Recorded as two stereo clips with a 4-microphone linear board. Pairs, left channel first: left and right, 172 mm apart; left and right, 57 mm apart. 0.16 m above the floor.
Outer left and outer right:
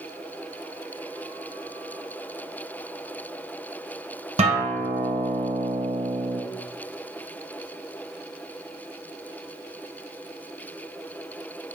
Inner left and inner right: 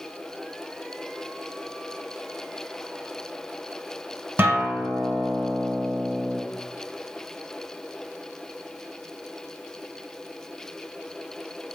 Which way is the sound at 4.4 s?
40° right (ahead or behind).